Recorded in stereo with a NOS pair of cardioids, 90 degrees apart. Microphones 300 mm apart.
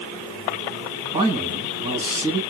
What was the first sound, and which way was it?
A man speaking, 20° right.